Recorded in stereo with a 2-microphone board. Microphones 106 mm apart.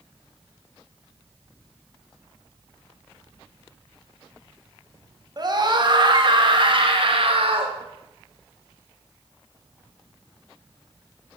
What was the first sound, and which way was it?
A scream, 40° right (ahead or behind).